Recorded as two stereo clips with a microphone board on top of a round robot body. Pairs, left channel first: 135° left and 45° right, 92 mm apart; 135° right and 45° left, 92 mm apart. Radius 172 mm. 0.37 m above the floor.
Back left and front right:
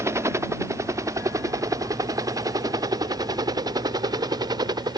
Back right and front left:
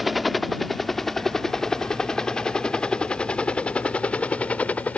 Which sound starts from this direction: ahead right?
A helicopter, at 0.0 s.